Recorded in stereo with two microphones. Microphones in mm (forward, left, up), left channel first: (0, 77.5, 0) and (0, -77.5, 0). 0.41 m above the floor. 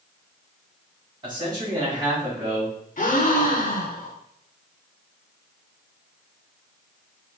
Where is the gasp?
60° left (ahead or behind), 0.7 m.